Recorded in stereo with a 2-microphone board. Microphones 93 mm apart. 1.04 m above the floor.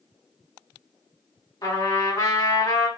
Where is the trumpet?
50° left (ahead or behind), 1.9 m.